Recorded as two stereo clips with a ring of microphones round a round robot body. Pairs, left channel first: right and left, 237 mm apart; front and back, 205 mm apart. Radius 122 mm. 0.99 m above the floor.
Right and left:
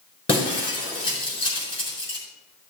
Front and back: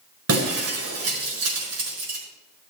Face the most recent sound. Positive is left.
turn(degrees=-160)